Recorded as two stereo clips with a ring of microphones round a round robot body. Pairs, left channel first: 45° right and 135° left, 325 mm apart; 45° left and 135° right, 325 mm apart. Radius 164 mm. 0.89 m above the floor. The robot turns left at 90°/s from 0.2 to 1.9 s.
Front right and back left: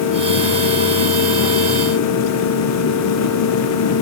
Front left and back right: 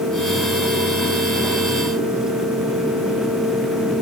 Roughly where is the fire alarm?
No fire alarm in this recording.